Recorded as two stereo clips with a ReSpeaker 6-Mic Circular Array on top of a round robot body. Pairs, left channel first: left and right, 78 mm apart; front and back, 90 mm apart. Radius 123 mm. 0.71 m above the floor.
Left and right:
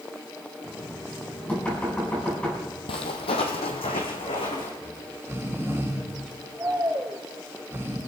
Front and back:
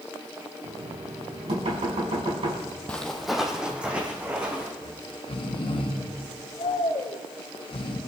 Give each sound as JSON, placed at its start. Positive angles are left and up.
{"t": 0.6, "sound": "knocking", "azimuth_deg": 165, "distance_m": 5.5}
{"t": 2.9, "sound": "footsteps", "azimuth_deg": 80, "distance_m": 1.2}
{"t": 4.8, "sound": "snoring", "azimuth_deg": -25, "distance_m": 1.8}